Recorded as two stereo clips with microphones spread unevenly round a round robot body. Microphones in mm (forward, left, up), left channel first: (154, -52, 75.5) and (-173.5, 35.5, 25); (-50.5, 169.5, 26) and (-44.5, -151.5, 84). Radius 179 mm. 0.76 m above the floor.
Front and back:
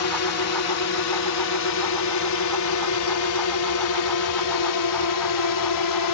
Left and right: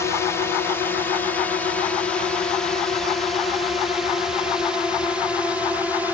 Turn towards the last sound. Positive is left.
turn(degrees=5)